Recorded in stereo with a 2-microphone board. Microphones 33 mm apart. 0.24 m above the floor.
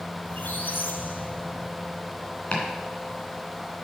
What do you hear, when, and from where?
0.2 s a squeak: 80° left, 0.9 m
2.5 s chopping: 40° left (ahead or behind), 2.5 m